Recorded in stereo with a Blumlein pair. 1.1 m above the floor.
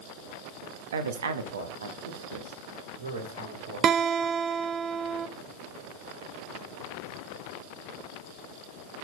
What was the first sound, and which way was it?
A woman speaking, 60° right.